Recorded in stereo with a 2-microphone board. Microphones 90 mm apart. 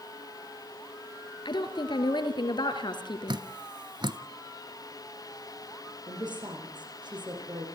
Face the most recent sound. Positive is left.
turn(degrees=-55)  # may be behind; listen again after turning